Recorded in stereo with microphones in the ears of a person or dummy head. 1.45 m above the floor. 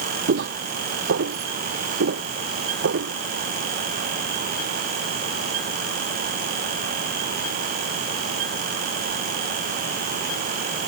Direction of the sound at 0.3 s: 50° right (ahead or behind).